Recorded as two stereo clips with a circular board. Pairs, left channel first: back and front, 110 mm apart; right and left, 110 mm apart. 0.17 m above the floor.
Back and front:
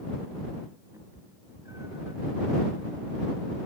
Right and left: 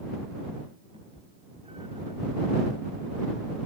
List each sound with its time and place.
0.9 s a cat meowing: 60° left